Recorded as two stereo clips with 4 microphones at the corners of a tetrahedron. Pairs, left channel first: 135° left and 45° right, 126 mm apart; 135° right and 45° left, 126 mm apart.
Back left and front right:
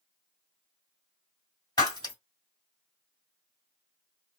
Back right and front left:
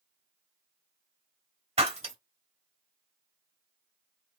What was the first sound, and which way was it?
Breaking glass, 80° left.